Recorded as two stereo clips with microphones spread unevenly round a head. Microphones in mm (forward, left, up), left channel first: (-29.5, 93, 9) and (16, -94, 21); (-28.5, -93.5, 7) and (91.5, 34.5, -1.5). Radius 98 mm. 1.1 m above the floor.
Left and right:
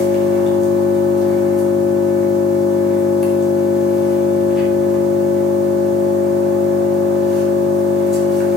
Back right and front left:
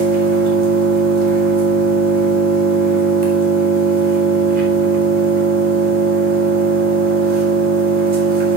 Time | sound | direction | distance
0.0 | an engine running | 15° left | 4.5 m